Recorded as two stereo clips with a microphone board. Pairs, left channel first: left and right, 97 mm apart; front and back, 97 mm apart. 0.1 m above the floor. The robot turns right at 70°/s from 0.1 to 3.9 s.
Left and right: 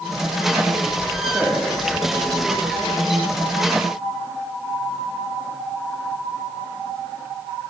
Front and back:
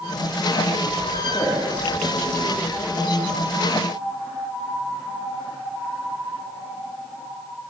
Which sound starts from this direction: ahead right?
A man speaking, at 1.3 s.